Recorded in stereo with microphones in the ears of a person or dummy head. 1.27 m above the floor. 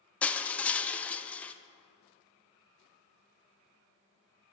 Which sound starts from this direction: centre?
Crushing, at 0.2 s.